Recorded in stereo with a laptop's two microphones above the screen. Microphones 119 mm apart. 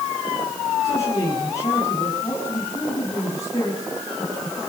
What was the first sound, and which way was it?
A man speaking, 30° left (ahead or behind).